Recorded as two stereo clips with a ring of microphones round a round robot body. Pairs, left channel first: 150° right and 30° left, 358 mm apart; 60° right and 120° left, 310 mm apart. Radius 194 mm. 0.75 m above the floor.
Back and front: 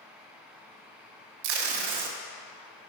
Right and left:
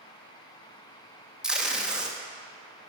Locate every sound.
1.4 s tape being pulled: 30° left, 0.7 m